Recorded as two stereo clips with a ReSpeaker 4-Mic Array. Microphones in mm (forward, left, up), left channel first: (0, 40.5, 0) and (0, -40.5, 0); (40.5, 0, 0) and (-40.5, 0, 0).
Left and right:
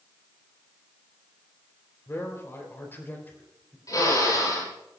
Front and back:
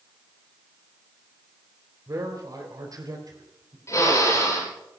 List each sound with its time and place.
2.1 s a man speaking: 140° left, 4 m; by 3.8 s 155° left, 4.5 m
3.9 s a drill: 50° left, 8.5 m